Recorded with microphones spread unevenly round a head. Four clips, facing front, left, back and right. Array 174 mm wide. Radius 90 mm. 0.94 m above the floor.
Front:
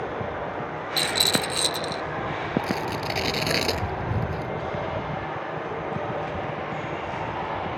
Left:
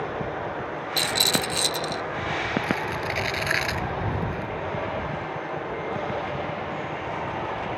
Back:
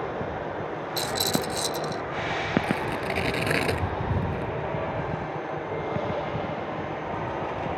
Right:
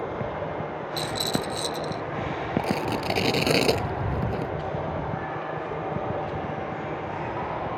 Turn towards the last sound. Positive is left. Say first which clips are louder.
# right 1 dB, even
turn(degrees=-95)